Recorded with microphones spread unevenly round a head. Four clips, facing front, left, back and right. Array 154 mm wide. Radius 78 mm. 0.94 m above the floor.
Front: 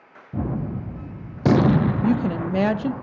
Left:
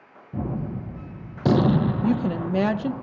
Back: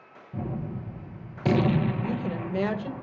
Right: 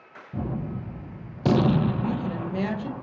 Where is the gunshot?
25° left, 0.5 m.